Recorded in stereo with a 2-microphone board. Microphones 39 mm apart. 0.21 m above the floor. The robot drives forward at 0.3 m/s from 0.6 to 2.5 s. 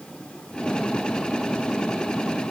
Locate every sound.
Only background noise.